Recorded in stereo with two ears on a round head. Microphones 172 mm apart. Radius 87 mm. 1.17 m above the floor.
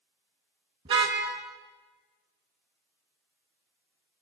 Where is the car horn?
30° right (ahead or behind), 5.5 m.